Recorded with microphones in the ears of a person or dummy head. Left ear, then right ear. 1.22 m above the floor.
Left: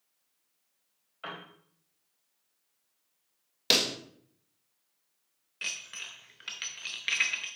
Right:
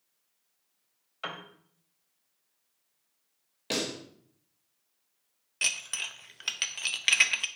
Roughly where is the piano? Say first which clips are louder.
Right 3 dB; right.